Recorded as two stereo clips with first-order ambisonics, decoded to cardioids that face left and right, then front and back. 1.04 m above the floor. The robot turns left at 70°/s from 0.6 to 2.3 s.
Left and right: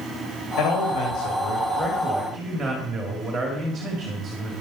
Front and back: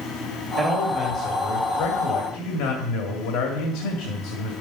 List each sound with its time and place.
0.6 s a man speaking: 115° left, 2 m; by 4.5 s 5° right, 2 m